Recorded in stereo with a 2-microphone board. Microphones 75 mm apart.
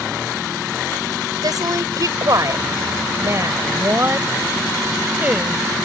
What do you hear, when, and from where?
1.4 s a woman speaking: 55° right (ahead or behind); by 5.6 s 15° right (ahead or behind)